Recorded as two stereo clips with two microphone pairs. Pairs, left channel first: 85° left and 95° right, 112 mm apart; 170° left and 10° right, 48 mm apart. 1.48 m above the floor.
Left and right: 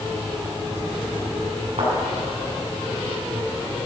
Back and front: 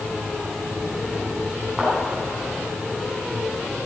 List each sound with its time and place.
1.8 s a thud: 100° right, 5.5 m